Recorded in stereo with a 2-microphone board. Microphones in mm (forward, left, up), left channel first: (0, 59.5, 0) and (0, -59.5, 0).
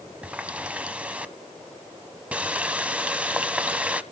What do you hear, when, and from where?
0.2 s a running tap: 10° right (ahead or behind), 0.9 m